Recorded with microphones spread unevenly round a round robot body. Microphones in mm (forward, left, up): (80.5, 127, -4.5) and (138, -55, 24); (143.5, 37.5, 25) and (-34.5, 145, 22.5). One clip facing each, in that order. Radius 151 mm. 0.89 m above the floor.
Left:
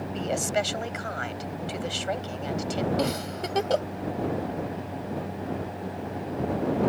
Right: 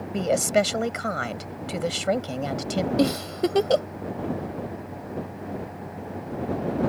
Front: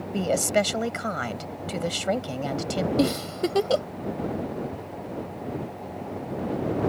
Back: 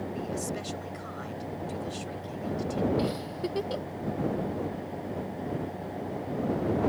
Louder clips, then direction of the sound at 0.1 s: Right 7 dB, front 9 dB; 45° right.